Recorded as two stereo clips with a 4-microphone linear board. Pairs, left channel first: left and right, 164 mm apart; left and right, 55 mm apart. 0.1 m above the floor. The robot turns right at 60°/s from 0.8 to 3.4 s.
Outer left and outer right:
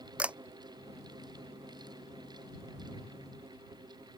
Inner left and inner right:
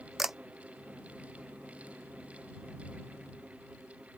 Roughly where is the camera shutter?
Centre.